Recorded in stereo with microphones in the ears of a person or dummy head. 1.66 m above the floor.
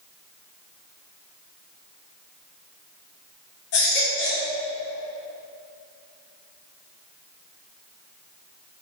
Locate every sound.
3.7 s a baby crying: 60° left (ahead or behind), 2.5 m